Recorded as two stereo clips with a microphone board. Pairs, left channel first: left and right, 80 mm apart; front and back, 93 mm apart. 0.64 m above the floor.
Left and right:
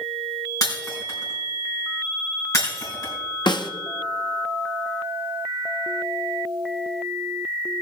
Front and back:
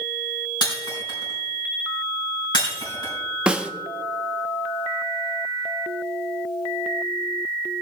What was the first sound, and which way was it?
Breaking glass, 40° left.